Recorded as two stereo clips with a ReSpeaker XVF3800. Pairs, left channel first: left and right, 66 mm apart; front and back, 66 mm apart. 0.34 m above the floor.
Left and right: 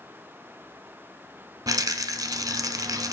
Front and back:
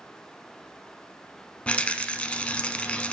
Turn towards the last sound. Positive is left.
turn(degrees=-70)